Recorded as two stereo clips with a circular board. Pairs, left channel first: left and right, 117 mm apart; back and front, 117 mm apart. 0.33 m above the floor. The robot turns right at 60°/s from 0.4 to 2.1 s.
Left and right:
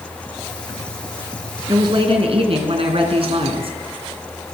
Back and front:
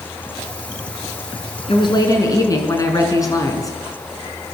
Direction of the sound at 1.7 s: 145° right.